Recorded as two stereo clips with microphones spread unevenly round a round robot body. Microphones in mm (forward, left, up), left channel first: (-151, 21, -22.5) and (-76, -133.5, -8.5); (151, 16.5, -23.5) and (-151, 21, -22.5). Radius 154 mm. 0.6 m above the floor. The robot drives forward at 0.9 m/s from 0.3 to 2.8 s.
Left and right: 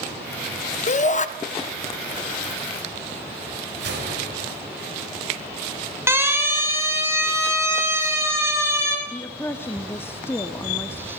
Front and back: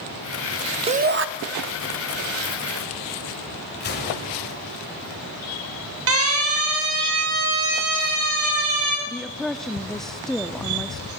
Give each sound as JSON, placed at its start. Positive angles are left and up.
{"t": 0.9, "sound": "a shout", "azimuth_deg": 115, "distance_m": 0.7}
{"t": 3.8, "sound": "a gunshot", "azimuth_deg": -55, "distance_m": 3.0}
{"t": 6.1, "sound": "a siren", "azimuth_deg": -140, "distance_m": 3.0}
{"t": 9.1, "sound": "a woman speaking", "azimuth_deg": 85, "distance_m": 0.5}